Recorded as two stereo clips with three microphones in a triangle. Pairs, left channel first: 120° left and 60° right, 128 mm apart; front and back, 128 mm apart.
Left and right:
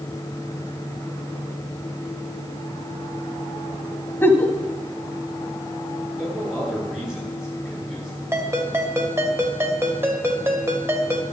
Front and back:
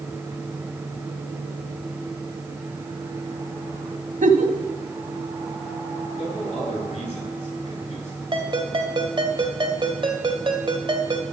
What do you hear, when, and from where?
4.2 s a giggle: 165° right, 1.4 m
6.2 s a man speaking: 25° left, 7.5 m
8.3 s a ringtone: 130° right, 2 m